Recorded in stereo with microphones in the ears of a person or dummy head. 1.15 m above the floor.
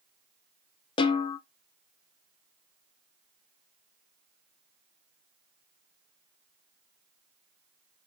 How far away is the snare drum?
About 0.6 m.